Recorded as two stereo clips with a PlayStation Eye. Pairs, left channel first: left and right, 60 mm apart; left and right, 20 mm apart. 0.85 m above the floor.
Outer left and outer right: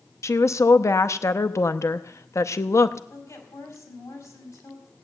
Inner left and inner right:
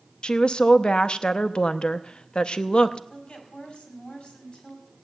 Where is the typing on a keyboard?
I don't hear typing on a keyboard.